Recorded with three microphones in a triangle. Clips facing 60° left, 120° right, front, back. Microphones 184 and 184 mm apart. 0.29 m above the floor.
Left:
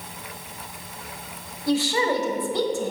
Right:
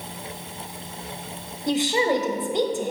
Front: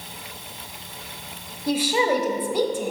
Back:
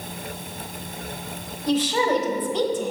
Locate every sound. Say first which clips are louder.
1.7 s a woman speaking: right 1 dB, even; 70° right, 1.1 m